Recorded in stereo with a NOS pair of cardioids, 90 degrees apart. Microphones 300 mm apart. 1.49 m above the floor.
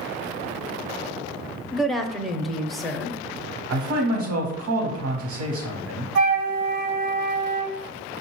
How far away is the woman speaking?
About 0.5 m.